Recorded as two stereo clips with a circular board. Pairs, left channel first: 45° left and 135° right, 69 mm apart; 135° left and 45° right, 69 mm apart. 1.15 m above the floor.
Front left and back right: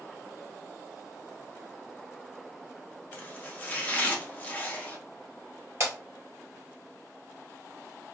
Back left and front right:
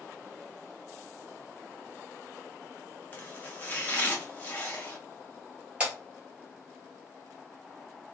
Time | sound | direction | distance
3.1 | chopping | 95° left | 0.7 m
5.8 | breaking glass | 110° right | 1.7 m